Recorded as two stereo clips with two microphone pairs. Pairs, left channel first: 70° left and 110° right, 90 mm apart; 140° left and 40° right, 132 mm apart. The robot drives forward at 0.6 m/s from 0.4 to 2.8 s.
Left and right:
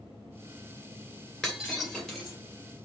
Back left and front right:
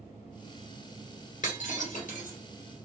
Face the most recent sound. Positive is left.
turn(degrees=160)